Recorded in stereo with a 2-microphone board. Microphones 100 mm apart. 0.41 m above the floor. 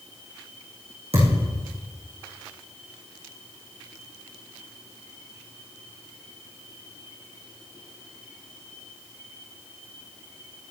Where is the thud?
80° right, 6.5 m.